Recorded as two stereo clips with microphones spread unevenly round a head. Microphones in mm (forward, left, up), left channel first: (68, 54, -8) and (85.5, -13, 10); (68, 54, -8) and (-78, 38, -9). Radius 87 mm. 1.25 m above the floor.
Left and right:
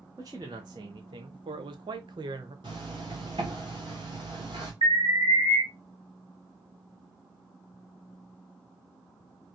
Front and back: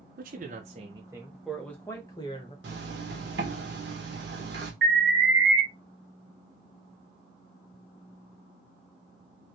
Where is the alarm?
125° right, 2.5 m.